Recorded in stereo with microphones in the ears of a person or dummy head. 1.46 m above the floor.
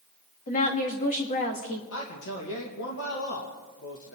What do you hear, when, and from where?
0.5 s a woman speaking: 40° left (ahead or behind), 2.5 m
1.9 s a man speaking: 65° left (ahead or behind), 2 m